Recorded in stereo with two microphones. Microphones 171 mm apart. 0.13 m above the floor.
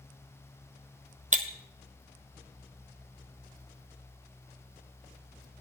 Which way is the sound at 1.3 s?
45° right (ahead or behind).